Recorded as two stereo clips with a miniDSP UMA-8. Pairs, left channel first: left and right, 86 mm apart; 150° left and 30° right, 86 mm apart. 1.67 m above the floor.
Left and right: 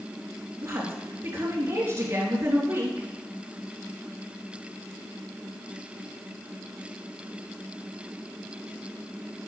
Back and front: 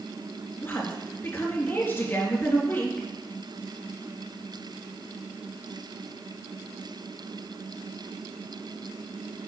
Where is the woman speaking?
140° right, 3 m.